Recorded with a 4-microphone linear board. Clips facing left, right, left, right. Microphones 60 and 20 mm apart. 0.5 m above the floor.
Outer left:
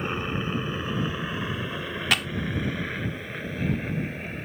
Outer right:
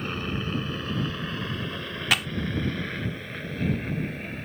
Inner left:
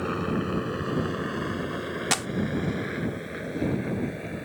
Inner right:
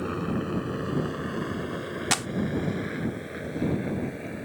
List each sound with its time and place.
0.0 s a helicopter: 15° left (ahead or behind); by 4.5 s 5° left (ahead or behind)
2.1 s a clap: centre (ahead or behind)